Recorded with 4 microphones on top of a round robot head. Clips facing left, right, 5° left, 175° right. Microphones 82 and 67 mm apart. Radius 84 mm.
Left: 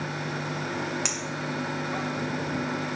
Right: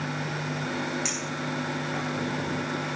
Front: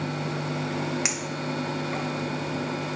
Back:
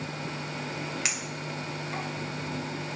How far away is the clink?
About 1.8 m.